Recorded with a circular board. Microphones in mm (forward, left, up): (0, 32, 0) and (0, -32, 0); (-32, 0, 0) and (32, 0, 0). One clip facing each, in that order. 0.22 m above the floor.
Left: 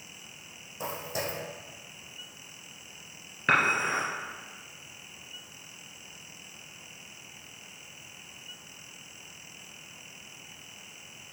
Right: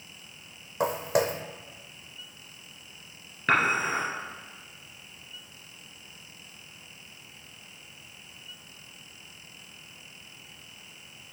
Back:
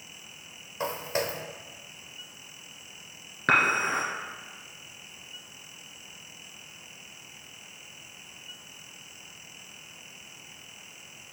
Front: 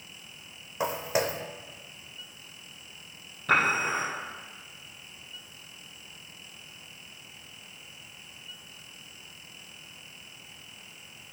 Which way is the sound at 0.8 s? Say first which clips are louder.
Right 9 dB, front 2 dB; 75° right.